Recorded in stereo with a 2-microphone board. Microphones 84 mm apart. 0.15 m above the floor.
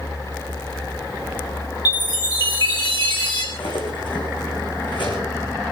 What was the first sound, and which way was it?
A chime, 55° left (ahead or behind).